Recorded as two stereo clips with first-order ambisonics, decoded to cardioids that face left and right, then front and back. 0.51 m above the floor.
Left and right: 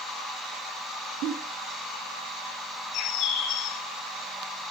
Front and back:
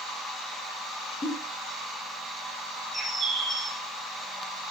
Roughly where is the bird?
Left.